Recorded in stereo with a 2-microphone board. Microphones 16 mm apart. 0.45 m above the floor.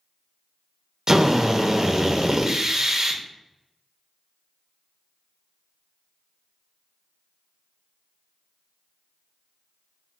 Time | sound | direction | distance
1.1 | a drill | 35° right (ahead or behind) | 0.5 m